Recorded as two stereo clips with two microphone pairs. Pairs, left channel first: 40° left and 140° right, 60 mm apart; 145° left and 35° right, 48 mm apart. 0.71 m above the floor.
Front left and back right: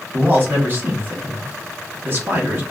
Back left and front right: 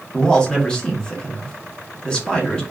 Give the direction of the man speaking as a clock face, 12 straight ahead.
5 o'clock.